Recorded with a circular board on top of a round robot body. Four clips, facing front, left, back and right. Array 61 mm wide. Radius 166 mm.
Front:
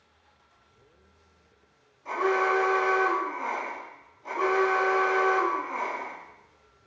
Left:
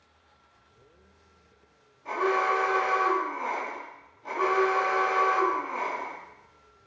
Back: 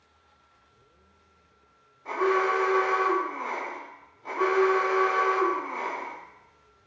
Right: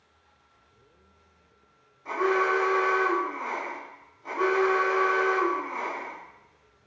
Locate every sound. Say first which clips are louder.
2.0 s an alarm: right 1 dB, even; 150° left, 1.9 m